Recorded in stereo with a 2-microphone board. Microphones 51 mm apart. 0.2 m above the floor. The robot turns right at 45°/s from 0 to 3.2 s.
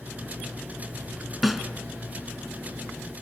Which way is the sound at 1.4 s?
Centre (ahead or behind).